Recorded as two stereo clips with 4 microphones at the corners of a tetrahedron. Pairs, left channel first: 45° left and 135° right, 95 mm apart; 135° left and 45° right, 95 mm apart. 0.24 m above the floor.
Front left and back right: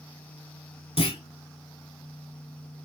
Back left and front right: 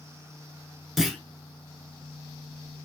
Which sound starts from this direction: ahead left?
A clunk, at 1.0 s.